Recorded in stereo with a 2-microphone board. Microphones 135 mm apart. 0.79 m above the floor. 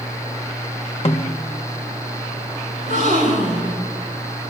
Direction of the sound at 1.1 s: 50° left (ahead or behind).